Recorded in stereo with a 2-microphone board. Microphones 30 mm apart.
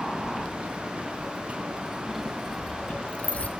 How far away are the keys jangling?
About 2 m.